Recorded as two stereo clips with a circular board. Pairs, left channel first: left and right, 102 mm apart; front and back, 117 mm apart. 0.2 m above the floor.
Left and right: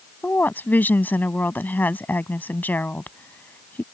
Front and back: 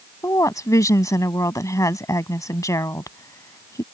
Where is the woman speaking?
35° left.